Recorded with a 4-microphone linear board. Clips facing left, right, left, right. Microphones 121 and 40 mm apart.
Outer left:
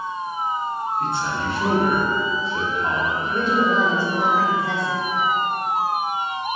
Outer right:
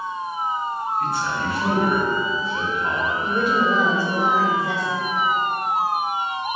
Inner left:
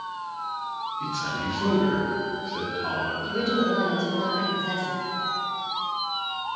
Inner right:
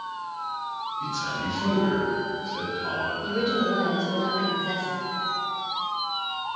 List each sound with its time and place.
1.0 s a man speaking: 25° left (ahead or behind), 1.0 m
3.2 s a woman speaking: 10° right (ahead or behind), 0.9 m